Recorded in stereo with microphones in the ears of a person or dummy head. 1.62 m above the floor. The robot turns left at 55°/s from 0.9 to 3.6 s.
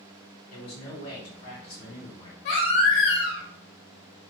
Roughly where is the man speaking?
Left.